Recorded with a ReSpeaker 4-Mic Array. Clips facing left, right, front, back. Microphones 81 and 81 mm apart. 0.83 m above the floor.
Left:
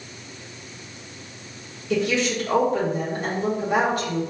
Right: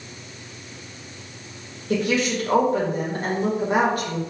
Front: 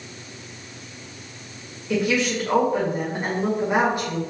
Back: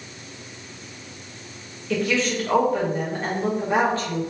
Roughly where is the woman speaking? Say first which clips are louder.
Even, front 1 dB; right.